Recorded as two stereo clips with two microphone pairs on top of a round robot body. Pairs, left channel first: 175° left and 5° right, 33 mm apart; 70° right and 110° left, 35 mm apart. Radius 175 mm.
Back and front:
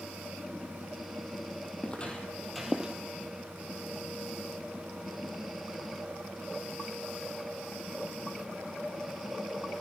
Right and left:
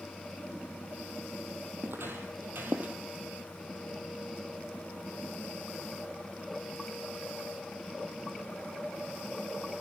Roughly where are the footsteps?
Behind left.